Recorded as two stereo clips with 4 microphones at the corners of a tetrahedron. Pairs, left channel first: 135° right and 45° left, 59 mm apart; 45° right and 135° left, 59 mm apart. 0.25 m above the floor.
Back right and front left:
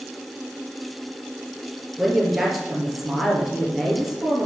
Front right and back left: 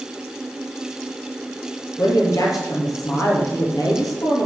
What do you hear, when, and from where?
2.0 s a woman speaking: 40° right, 5 m